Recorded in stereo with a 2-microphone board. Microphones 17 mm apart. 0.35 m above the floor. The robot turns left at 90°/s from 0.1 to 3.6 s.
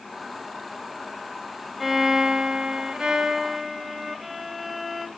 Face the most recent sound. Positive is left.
turn(degrees=-175)